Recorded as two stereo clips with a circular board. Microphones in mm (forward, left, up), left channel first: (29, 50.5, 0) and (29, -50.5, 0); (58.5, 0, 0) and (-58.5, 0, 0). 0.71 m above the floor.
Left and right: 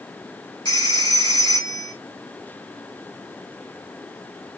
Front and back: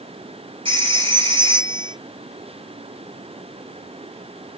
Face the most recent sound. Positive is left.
turn(degrees=140)